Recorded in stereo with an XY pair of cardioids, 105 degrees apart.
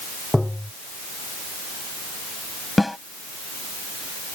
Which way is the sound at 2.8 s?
10° left.